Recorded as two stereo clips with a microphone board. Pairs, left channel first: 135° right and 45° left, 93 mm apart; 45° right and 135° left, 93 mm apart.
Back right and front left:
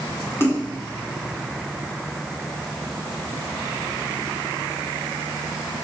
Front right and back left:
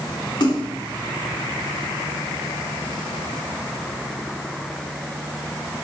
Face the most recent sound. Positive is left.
turn(degrees=-75)